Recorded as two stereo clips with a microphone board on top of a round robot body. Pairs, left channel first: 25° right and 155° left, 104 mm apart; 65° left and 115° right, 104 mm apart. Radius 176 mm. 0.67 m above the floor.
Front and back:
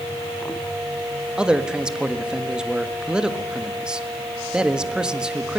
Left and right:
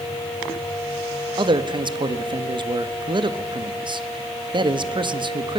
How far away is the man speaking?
About 1.7 m.